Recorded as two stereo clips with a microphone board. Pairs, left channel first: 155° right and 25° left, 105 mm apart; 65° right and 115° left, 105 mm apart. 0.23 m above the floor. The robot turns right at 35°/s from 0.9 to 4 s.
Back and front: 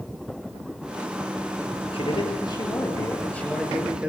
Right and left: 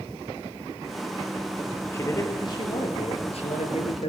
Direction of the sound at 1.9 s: 130° right.